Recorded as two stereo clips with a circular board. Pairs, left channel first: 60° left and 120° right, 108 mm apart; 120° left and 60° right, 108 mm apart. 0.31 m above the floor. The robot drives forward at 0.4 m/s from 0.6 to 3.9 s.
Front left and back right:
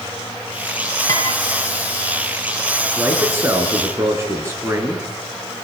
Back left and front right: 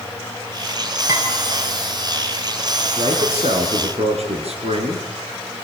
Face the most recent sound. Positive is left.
turn(degrees=-55)